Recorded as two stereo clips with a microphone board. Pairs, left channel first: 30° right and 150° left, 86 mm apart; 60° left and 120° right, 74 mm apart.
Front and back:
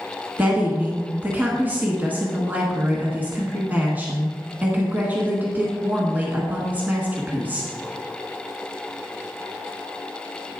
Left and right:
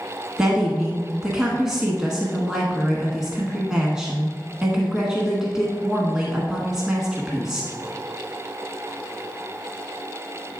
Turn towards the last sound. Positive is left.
turn(degrees=175)